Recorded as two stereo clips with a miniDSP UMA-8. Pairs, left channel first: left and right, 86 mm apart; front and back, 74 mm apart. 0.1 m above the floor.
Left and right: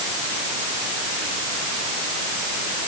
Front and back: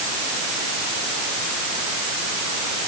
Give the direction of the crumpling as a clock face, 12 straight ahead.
No crumpling in this recording.